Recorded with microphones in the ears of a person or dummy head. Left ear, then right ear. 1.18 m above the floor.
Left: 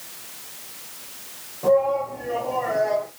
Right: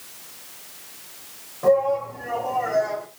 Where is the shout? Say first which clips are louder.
Even; 65° right (ahead or behind), 5.5 m; by 3.1 s 70° right (ahead or behind), 7.5 m.